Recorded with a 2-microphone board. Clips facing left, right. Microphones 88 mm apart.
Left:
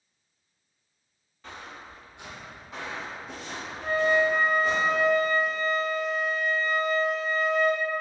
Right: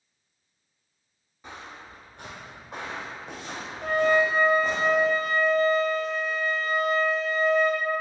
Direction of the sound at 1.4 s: 20° right (ahead or behind).